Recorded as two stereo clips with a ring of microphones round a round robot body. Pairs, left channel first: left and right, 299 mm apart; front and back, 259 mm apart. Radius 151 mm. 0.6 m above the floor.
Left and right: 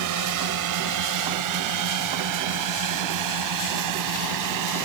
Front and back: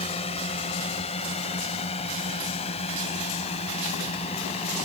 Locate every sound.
0.0 s a drone: 70° right